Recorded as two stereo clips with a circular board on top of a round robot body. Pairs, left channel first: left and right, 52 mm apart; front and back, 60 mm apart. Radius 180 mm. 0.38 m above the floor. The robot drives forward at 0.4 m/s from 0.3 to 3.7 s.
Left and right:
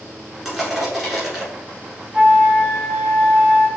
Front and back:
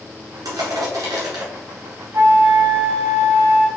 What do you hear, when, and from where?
0.5 s crushing: 170° right, 2.0 m
2.1 s a flute: 150° right, 1.0 m; by 3.7 s 165° right, 1.5 m